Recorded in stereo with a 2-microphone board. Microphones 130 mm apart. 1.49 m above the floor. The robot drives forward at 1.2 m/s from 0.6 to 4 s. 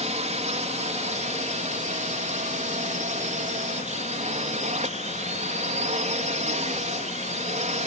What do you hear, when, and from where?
0.0 s a drone: 60° right (ahead or behind); by 7.9 s 65° right (ahead or behind)